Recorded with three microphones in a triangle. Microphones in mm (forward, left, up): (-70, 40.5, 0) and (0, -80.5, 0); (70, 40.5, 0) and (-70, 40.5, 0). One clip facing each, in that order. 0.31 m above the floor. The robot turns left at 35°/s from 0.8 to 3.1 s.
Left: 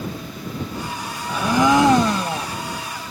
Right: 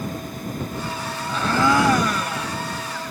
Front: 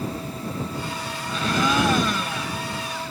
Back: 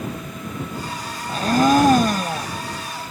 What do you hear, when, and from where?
1.3 s a blender: 165° right; by 2.5 s 155° left